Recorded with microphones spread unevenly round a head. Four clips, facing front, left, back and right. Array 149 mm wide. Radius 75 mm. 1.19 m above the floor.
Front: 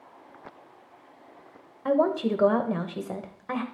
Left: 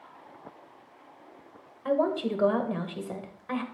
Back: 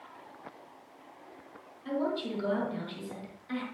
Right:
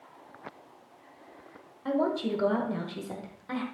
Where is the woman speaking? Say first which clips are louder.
Left 2 dB, front 9 dB; 10° left, 1.0 m.